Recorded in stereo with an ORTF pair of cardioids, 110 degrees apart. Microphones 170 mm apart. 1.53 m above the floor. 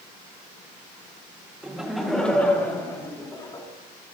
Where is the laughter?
5° right, 1.8 m; by 3.7 s 20° left, 2.5 m.